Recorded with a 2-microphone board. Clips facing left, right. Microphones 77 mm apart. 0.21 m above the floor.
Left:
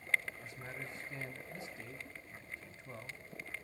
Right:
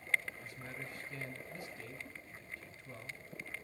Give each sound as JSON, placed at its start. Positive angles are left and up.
{"t": 0.4, "sound": "a man speaking", "side_deg": 20, "distance_m": 1.0}